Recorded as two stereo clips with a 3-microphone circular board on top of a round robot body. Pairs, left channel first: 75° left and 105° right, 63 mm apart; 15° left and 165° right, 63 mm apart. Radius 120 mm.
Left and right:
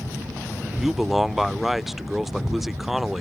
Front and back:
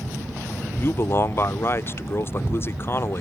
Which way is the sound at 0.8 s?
20° right.